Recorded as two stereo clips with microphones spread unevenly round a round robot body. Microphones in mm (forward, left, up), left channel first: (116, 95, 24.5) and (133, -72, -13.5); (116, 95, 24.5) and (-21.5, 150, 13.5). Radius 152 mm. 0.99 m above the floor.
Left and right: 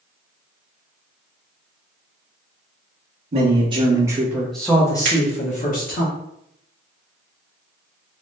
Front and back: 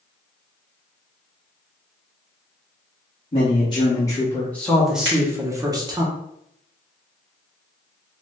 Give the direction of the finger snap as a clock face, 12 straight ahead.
4 o'clock.